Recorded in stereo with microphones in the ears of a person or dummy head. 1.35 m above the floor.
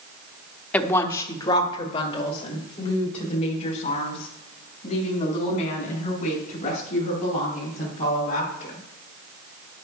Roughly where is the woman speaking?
Centre.